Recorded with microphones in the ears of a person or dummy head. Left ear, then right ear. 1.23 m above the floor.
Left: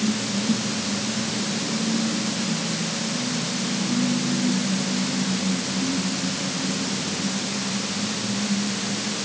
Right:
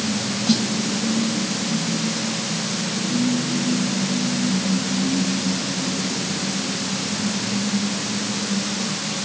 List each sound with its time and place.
0.5 s a snare drum: 45° right (ahead or behind), 1.8 m